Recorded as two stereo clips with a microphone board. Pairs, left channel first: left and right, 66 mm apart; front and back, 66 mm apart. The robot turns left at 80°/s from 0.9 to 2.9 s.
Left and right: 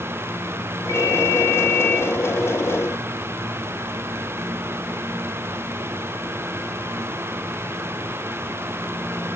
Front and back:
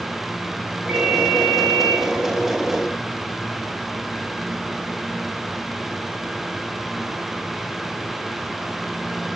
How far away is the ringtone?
About 3 m.